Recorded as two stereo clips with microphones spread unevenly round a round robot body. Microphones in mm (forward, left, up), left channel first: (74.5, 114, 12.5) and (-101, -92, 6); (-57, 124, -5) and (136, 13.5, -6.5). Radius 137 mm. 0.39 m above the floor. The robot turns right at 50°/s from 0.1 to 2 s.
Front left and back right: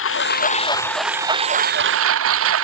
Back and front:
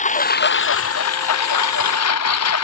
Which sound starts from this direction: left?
A lawn mower, at 0.0 s.